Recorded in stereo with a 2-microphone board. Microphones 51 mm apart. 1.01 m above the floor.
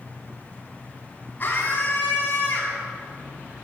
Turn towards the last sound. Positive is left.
turn(degrees=35)  # may be behind; listen again after turning